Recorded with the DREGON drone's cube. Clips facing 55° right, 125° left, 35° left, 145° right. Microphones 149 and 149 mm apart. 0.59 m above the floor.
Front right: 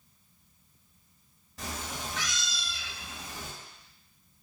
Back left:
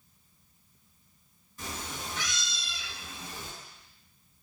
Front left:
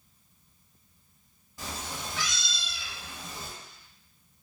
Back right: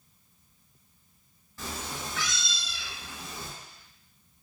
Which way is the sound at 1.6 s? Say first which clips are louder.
Front right 1 dB, back right 1 dB; 40° right.